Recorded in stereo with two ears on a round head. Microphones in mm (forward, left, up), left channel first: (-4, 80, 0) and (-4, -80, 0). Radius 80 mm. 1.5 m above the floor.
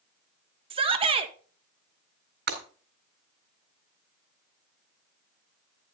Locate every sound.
0.7 s a shout: 30° right (ahead or behind), 1.5 m
2.5 s breaking glass: 60° right (ahead or behind), 4.5 m